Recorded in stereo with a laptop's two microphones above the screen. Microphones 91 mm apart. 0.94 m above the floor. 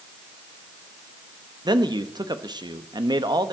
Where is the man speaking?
50° right (ahead or behind), 1.3 m.